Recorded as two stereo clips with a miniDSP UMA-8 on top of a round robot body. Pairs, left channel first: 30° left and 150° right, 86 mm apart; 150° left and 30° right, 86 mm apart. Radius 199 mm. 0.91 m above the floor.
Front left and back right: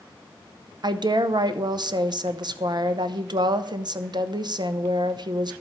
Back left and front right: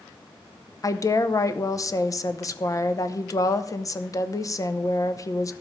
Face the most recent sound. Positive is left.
turn(degrees=-165)